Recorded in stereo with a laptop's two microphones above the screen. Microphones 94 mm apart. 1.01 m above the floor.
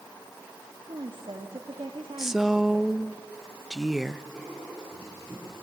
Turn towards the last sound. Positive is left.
turn(degrees=-5)  # may be behind; listen again after turning